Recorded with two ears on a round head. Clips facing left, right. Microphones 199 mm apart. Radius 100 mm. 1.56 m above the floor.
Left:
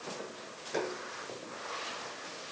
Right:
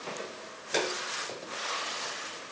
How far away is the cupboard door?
No cupboard door in this recording.